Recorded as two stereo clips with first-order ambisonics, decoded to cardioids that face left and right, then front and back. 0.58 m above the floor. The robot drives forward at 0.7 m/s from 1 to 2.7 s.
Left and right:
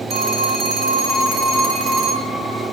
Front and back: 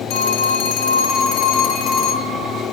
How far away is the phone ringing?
About 3 m.